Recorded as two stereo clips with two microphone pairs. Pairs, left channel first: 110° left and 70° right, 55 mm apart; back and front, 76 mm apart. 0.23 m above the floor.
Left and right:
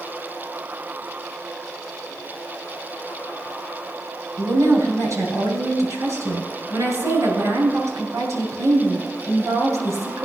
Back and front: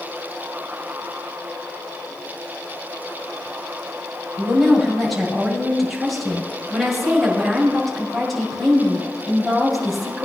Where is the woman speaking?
90° right, 5 m.